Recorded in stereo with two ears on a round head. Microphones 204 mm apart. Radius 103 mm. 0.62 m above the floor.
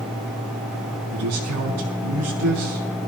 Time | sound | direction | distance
1.1 | a man speaking | 80° right | 5.5 m